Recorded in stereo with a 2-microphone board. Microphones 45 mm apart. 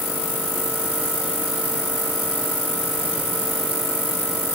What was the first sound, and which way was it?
Only background noise.